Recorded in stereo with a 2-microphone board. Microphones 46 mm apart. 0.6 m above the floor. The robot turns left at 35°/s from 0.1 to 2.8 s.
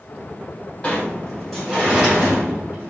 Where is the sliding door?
25° left, 3 m; by 2.9 s 40° right, 3 m.